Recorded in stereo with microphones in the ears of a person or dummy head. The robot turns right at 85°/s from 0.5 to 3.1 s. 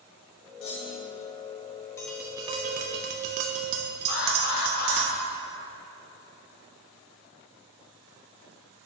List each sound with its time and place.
0.6 s a clunk: 100° left, 1.1 m; by 1.2 s 150° left, 1.1 m
2.0 s tapping: 165° left, 0.6 m; by 5.1 s 100° right, 0.6 m
4.1 s an alarm: 55° left (ahead or behind), 0.8 m